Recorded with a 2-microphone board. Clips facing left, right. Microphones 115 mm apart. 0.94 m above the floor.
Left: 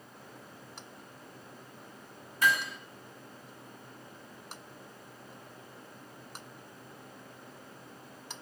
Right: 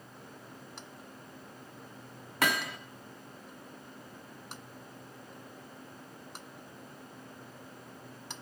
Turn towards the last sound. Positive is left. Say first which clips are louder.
# left 2 dB
turn(degrees=-70)  # may be behind; listen again after turning